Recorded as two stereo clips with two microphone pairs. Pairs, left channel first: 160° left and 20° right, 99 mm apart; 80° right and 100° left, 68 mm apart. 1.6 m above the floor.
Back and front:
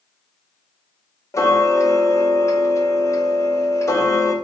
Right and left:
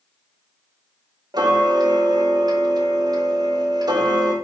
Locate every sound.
1.3 s ticking: 100° left, 0.7 m